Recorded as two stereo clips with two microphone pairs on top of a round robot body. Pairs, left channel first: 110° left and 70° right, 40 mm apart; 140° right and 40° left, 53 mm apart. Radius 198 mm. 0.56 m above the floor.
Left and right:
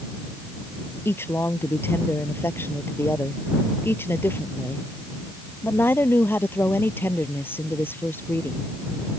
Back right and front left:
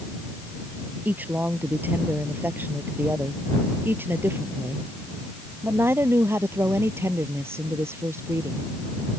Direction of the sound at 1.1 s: 100° left.